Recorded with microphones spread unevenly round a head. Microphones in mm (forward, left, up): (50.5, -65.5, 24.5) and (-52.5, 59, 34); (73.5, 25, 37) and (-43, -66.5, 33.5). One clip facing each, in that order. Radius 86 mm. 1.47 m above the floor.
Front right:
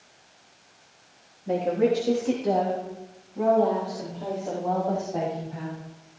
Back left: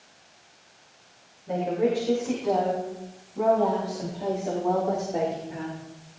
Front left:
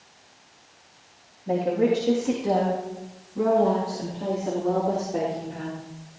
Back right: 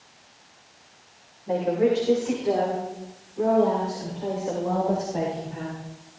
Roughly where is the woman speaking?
Ahead.